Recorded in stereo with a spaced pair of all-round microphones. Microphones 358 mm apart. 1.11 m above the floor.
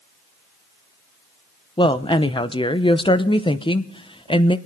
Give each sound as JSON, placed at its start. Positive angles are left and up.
{"t": 1.8, "sound": "a woman speaking", "side_deg": 15, "distance_m": 0.7}